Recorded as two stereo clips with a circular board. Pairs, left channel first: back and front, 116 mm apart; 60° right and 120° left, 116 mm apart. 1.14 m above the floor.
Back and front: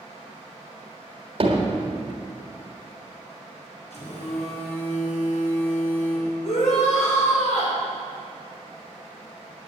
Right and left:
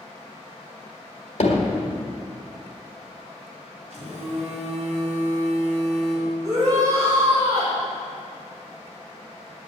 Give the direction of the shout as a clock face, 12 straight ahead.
6 o'clock.